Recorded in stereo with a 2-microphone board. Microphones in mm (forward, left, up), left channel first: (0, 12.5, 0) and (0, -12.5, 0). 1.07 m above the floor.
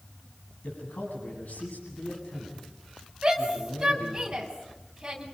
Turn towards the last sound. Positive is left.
turn(degrees=-20)  # may be behind; listen again after turning